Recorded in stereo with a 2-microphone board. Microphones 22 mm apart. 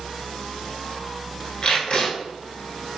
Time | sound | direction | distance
1.6 | tape being pulled | 45° left (ahead or behind) | 1.0 m